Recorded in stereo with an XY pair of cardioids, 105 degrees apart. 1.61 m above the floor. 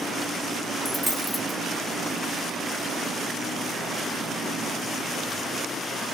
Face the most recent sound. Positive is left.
turn(degrees=10)